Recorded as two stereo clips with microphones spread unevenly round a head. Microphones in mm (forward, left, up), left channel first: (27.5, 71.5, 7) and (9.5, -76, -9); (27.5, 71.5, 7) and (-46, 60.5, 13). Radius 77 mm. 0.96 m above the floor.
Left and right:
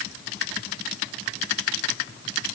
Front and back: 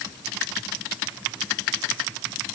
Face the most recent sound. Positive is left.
No sound to turn to.